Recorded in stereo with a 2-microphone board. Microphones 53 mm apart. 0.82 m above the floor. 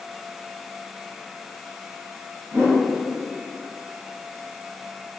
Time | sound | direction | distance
2.5 | a whoosh | 65° right (ahead or behind) | 1.1 m